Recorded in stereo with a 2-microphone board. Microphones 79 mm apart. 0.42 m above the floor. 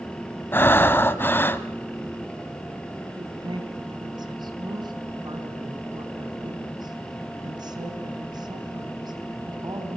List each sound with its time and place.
0.5 s breathing: 25° left (ahead or behind), 1.1 m
3.2 s a woman speaking: 60° right (ahead or behind), 4 m